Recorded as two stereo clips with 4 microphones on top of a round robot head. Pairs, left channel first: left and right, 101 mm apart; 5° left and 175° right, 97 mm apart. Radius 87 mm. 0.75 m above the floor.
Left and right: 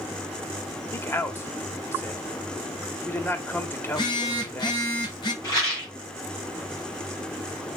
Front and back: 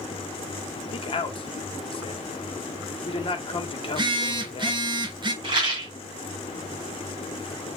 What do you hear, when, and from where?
0.9 s a man speaking: 25° left, 1.9 m
3.9 s a phone buzzing: 145° left, 1.8 m
5.4 s a rattle: 145° left, 5 m